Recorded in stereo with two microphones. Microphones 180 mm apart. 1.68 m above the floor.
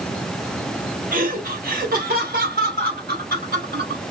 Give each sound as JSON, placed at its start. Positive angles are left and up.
{"t": 1.1, "sound": "laughter", "side_deg": -50, "distance_m": 1.4}